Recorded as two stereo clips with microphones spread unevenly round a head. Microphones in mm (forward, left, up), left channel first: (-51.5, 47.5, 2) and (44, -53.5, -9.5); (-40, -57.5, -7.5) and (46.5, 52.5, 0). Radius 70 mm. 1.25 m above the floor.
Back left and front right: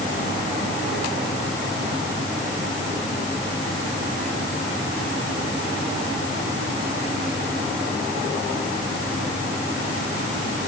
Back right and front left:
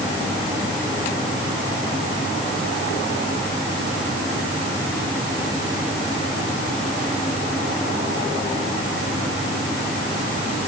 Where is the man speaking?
I don't hear a man speaking.